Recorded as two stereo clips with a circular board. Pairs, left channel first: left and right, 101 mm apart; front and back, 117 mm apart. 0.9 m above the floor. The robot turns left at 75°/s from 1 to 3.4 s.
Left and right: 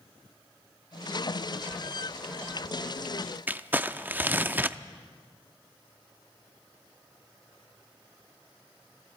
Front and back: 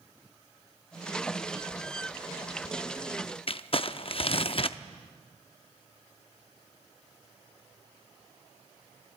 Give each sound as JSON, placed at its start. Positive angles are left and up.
{"t": 3.5, "sound": "crumpling", "azimuth_deg": -20, "distance_m": 0.5}